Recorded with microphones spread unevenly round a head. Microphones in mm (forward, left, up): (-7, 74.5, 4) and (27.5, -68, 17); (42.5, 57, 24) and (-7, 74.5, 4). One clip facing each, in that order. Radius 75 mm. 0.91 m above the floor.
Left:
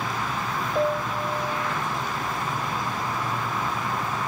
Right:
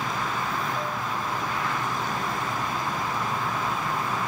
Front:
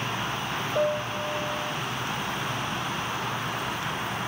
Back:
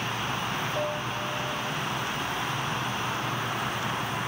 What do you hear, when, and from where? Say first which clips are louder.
0.8 s a piano: left 6 dB, front 4 dB; 45° left